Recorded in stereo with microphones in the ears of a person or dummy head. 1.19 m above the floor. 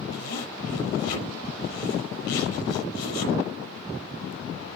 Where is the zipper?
65° left (ahead or behind), 6 m.